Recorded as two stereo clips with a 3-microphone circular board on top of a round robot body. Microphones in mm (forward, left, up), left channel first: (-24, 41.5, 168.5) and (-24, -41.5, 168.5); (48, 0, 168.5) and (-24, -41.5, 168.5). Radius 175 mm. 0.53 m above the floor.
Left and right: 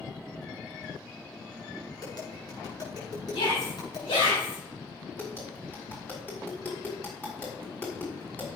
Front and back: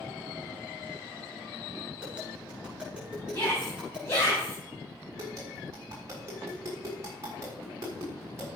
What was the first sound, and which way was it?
Tapping, 130° left.